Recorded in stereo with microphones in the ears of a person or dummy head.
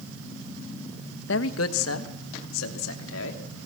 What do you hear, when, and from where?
1.3 s a man speaking: 65° left (ahead or behind), 1.4 m; by 3.4 s 75° left (ahead or behind), 3.5 m